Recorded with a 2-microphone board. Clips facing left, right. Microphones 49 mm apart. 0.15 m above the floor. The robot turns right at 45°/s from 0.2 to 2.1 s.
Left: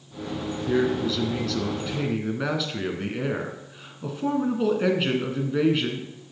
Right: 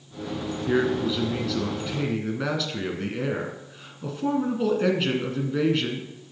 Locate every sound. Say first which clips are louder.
0.7 s a man speaking: even; 50° right, 1.5 m; by 6.1 s 10° left, 1.5 m